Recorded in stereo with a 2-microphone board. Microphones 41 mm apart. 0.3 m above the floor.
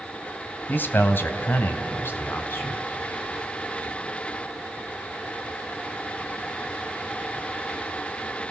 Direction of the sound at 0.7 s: 50° left (ahead or behind).